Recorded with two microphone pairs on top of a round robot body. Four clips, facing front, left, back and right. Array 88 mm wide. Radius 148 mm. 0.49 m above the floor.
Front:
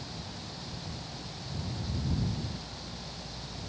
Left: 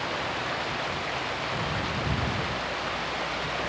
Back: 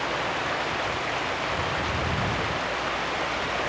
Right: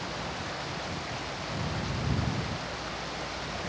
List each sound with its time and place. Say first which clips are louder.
0.0 s running water: left 5 dB, back 16 dB; 160° left